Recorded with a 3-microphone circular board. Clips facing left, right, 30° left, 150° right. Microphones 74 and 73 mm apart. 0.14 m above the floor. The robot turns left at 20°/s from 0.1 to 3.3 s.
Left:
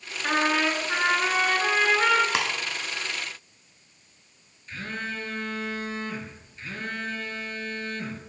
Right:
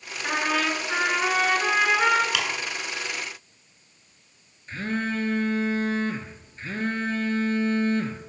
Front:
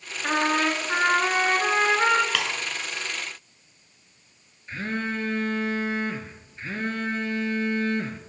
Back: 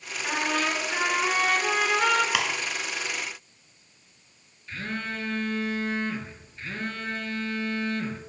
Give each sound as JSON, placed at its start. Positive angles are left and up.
{"t": 0.2, "sound": "a trumpet", "azimuth_deg": 20, "distance_m": 0.8}
{"t": 2.3, "sound": "ticking", "azimuth_deg": 135, "distance_m": 0.8}
{"t": 4.7, "sound": "a phone buzzing", "azimuth_deg": -35, "distance_m": 0.7}